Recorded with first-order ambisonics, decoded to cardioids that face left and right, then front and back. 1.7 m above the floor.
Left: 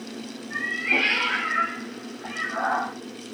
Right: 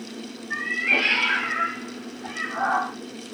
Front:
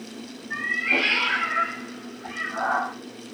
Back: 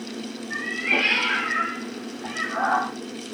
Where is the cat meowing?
75° right, 1.1 m; by 2.9 s 140° left, 1.2 m.